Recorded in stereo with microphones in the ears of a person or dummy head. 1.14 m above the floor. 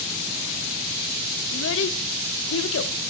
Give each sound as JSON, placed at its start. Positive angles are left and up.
{"t": 1.5, "sound": "a child speaking", "side_deg": 75, "distance_m": 0.9}